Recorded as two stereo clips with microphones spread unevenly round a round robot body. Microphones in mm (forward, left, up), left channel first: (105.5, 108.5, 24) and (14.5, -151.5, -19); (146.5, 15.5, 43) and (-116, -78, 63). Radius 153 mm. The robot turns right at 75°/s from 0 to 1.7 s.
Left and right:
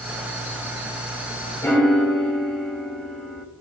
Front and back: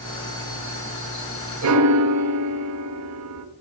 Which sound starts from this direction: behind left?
A piano, at 1.6 s.